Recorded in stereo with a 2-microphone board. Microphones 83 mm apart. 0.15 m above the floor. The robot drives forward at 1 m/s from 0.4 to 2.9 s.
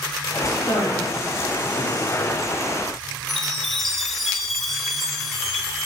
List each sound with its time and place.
0.5 s a man speaking: 50° left (ahead or behind), 4.5 m; by 2.3 s 60° left (ahead or behind), 3.5 m
3.3 s a chime: centre (ahead or behind), 1.6 m